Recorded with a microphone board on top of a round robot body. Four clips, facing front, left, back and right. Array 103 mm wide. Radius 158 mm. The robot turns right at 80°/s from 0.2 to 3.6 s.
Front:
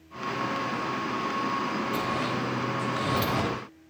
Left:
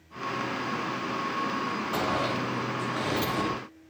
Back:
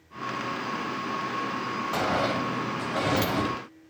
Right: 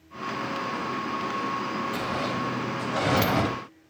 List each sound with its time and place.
1.9 s a sliding door: 155° left, 0.9 m; by 3.5 s 75° right, 0.9 m